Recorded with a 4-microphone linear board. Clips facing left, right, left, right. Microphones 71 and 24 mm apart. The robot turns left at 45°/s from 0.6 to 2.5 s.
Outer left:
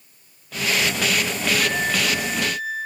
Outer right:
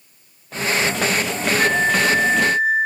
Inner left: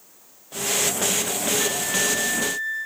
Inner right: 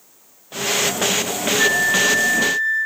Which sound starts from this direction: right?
A flute, at 1.6 s.